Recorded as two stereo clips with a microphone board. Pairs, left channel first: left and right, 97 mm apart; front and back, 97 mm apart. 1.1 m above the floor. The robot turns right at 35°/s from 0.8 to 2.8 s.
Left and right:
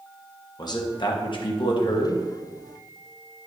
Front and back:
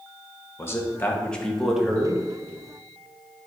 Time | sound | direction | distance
0.6 | a man speaking | 60° left | 1.0 m